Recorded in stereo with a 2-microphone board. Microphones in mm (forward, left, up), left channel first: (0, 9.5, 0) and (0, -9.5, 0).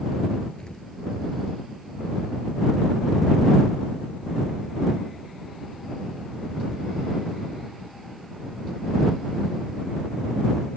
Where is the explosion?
45° left (ahead or behind).